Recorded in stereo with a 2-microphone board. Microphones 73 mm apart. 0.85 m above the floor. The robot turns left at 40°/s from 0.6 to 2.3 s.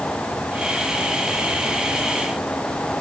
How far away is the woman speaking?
No woman speaking in this recording.